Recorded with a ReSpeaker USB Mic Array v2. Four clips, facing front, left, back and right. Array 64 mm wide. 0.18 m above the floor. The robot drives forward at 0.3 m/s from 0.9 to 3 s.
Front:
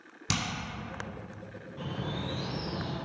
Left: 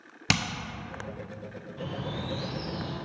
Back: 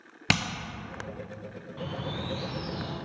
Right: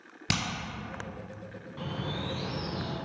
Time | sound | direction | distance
0.3 | hammering | 160° left | 0.7 m
1.8 | a bird | 130° right | 1.1 m